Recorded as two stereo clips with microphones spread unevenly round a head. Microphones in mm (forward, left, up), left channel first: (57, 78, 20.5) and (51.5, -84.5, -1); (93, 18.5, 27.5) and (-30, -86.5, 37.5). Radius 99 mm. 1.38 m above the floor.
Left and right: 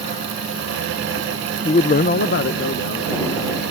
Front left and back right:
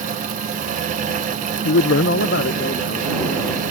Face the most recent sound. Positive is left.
turn(degrees=90)